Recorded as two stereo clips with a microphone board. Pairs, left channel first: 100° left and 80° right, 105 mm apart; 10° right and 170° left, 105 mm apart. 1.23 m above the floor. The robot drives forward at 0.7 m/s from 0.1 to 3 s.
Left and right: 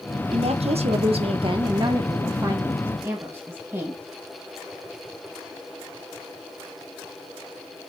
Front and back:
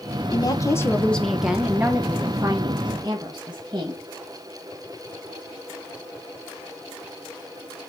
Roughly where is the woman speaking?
Ahead right.